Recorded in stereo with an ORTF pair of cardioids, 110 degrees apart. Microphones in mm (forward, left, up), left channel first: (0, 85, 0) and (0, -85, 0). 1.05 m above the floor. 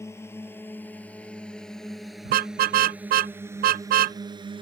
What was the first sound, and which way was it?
A drone, 15° left.